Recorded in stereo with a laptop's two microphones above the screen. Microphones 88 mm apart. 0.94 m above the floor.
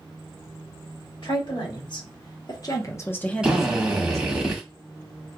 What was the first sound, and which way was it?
A woman speaking, 65° left (ahead or behind).